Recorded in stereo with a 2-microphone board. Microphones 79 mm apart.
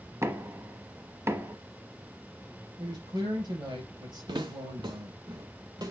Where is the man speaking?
65° right (ahead or behind), 4 m.